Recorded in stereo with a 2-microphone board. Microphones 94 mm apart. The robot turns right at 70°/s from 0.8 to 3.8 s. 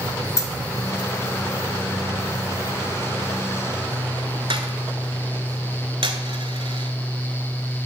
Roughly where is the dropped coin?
Left.